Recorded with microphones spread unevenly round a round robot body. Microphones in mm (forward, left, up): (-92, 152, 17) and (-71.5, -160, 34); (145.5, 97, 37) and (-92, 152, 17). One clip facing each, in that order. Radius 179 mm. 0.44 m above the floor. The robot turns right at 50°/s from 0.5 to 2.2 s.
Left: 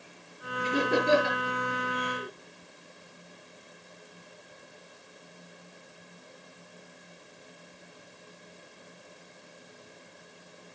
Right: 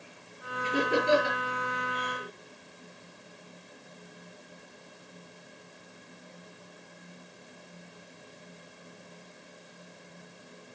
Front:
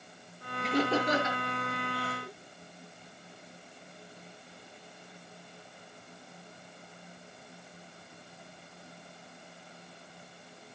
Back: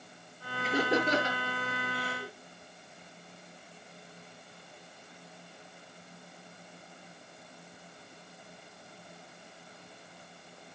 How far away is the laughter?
About 7 m.